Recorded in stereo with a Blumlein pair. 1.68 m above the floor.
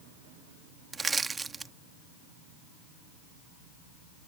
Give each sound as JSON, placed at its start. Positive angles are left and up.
{"t": 0.9, "sound": "crushing", "azimuth_deg": -15}